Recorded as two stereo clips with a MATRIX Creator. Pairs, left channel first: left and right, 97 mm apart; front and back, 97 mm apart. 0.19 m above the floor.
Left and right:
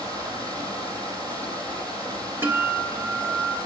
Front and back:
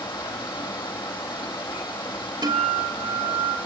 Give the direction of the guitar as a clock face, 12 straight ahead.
5 o'clock.